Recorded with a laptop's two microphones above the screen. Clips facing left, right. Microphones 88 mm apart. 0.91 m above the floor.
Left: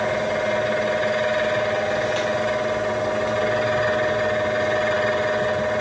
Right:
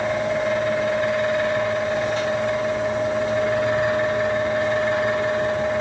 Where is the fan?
85° left, 1.6 m.